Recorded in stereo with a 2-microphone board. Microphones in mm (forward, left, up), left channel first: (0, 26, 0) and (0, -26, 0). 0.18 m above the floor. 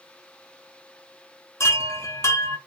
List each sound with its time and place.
1.6 s a chime: 60° left (ahead or behind), 0.6 m